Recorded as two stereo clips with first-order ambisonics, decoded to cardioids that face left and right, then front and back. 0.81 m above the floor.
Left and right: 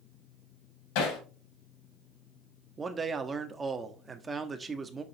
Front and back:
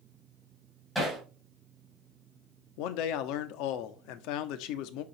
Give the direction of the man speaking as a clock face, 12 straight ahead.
1 o'clock.